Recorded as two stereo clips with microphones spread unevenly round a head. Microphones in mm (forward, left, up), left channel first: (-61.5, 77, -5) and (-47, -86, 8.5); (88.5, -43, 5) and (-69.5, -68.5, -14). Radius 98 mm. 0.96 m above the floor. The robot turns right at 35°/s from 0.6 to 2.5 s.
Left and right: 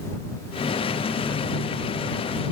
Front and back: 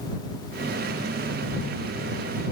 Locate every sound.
Only background noise.